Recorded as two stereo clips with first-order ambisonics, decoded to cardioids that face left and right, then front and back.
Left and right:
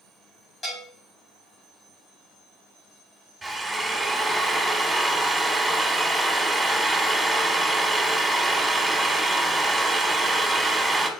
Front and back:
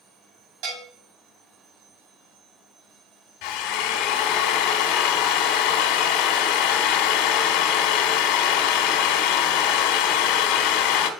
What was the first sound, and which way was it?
A bell, 165° left.